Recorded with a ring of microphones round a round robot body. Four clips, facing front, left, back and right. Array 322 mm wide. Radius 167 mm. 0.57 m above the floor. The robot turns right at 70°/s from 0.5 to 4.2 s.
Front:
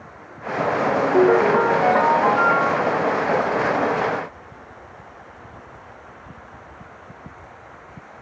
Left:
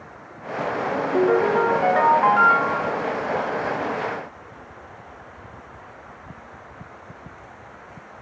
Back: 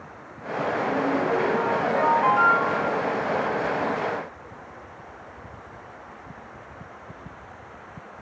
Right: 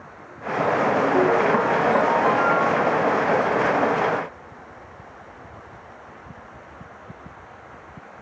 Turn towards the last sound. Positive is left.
turn(degrees=-150)